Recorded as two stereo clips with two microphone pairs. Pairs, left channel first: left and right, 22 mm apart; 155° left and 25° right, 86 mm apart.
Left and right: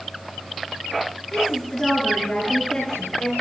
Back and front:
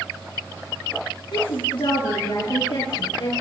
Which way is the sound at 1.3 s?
165° left.